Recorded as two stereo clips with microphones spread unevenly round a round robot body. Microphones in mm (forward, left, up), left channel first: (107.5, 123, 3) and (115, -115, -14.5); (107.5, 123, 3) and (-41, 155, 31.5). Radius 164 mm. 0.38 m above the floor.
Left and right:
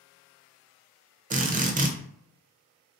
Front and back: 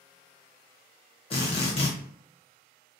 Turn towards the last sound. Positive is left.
turn(degrees=-40)